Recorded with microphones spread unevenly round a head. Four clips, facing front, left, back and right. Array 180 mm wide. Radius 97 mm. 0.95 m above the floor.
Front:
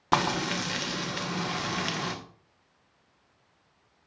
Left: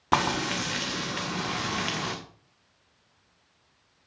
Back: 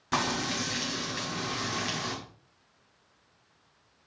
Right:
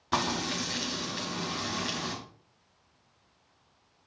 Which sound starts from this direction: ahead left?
Frying, at 0.1 s.